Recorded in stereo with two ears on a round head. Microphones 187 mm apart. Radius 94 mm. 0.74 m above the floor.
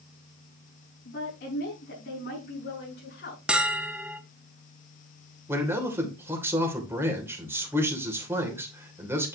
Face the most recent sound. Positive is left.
turn(degrees=-10)  # may be behind; listen again after turning